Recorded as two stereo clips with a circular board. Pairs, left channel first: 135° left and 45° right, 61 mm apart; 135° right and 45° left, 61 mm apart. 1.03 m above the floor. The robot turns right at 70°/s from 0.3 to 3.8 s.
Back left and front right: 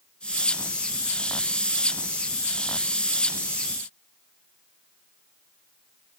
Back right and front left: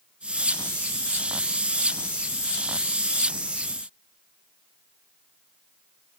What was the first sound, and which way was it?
Only background noise.